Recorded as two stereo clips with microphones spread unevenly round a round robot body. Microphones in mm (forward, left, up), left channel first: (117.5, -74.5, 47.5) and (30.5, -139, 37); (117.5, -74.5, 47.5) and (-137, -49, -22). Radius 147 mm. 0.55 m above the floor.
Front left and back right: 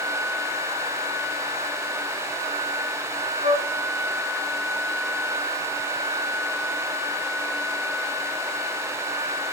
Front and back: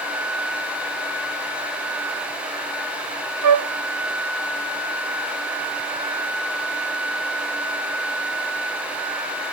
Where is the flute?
170° left, 0.7 m.